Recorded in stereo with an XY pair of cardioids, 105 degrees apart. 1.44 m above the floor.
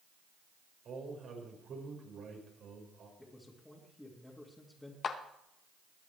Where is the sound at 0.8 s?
60° right, 5.5 m.